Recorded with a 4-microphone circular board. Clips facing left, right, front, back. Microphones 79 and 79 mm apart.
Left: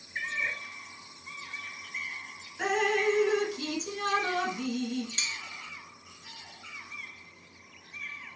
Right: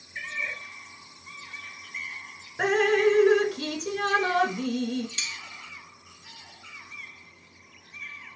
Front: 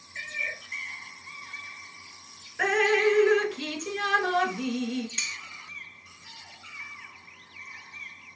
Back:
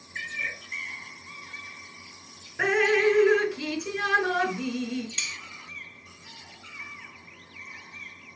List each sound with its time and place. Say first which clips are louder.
0.1 s a cat meowing: left 1 dB, back 1 dB; 145° left, 1.5 m
2.6 s dripping: right 6 dB, back 1 dB; 105° right, 0.6 m
5.2 s cutlery clinking: even, even; 80° left, 1.0 m